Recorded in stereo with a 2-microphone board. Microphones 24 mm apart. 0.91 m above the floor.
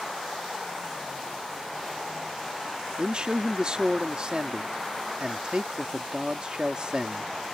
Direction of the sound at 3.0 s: 35° right (ahead or behind).